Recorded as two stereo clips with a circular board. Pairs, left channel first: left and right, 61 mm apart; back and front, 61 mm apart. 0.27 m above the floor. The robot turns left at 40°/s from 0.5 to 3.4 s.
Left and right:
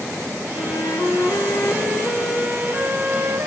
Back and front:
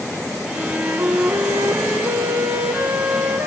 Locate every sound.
0.6 s a flute: 70° left, 1.7 m; by 3.5 s 45° right, 1.7 m